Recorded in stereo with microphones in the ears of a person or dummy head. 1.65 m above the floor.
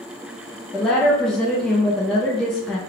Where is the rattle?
I don't hear a rattle.